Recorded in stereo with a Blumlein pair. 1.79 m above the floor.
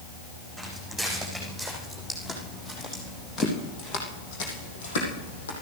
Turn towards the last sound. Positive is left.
turn(degrees=65)